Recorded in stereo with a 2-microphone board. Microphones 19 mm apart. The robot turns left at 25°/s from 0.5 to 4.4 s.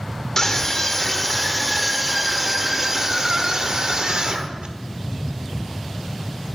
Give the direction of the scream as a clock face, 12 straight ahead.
11 o'clock.